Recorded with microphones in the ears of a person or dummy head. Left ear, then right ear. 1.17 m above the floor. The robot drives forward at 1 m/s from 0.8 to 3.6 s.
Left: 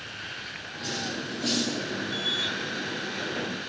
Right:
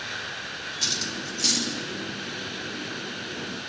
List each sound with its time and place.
0.8 s cutlery clinking: 65° right (ahead or behind), 1.1 m; by 1.7 s 50° right (ahead or behind), 1.3 m